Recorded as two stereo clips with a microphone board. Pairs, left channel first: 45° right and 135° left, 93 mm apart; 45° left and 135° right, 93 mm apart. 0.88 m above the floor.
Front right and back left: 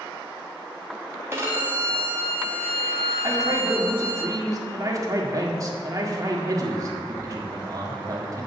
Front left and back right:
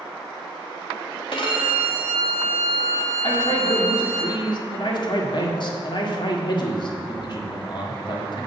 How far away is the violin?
About 2 m.